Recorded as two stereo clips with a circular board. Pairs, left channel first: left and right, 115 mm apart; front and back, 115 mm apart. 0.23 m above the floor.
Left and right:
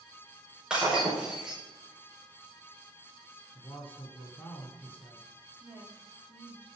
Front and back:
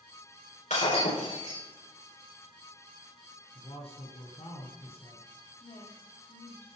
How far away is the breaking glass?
About 8 m.